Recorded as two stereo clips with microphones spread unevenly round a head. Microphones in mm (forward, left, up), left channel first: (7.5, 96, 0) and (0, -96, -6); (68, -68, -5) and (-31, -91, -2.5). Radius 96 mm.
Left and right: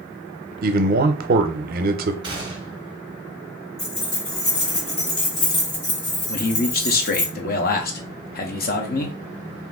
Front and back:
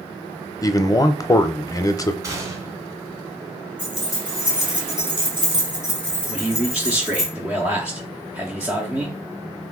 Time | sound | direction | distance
0.6 | a man speaking | 45° right | 0.6 m
2.2 | a gunshot | 140° right | 1.1 m
3.8 | keys jangling | 125° left | 2 m
6.3 | a man speaking | 110° left | 0.8 m